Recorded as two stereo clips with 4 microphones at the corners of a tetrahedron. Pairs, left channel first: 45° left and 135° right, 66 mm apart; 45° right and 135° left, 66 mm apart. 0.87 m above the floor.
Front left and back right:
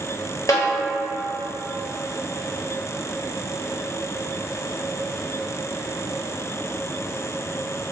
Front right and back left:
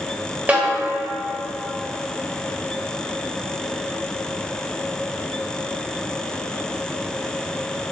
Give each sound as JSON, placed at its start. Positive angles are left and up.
{"t": 0.5, "sound": "a snare drum", "azimuth_deg": 70, "distance_m": 1.1}